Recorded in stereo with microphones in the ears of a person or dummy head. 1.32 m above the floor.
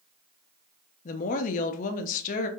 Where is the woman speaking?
45° left (ahead or behind), 0.7 m.